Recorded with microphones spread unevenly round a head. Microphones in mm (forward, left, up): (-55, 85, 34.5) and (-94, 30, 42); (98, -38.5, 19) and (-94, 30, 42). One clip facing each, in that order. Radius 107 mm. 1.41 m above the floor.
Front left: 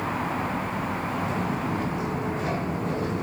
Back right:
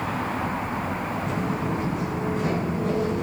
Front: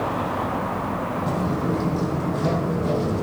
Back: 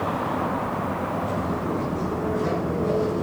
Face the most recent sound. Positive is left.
turn(degrees=-70)